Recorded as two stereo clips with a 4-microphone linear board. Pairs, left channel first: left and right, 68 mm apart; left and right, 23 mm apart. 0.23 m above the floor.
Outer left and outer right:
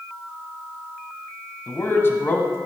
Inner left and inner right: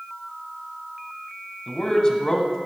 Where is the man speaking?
35° left (ahead or behind), 1.6 m.